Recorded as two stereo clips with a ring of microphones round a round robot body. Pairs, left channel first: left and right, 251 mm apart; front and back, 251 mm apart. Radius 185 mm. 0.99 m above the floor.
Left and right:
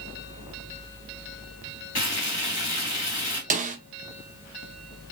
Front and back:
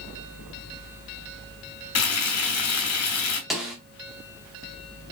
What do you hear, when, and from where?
1.9 s frying: 20° left, 1.9 m
3.5 s a snare drum: 95° right, 0.5 m